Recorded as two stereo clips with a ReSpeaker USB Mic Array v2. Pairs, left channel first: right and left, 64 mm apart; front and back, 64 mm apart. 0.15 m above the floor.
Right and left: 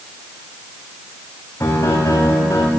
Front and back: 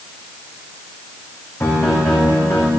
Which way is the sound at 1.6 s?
50° right.